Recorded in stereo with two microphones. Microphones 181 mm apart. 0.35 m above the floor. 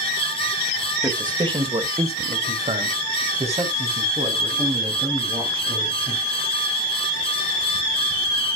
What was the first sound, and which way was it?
A man speaking, 20° right (ahead or behind).